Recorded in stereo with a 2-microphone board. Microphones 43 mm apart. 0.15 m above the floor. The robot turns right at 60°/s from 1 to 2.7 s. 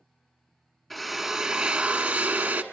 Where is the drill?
175° left, 1.4 m; by 2.6 s 90° right, 1.4 m.